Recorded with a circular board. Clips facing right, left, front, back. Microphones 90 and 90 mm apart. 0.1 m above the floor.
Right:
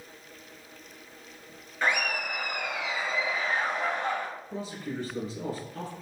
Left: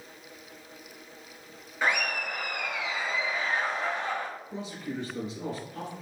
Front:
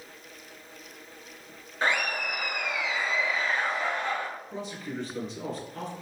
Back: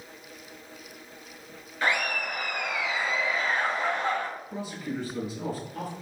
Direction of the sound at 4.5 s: 100° right.